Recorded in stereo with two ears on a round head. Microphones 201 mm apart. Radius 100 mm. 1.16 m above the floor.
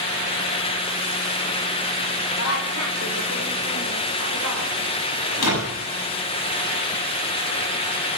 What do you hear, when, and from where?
2.4 s a woman speaking: 75° left (ahead or behind), 5 m; by 4.7 s 65° left (ahead or behind), 5.5 m
5.3 s a door slam: 80° left, 7 m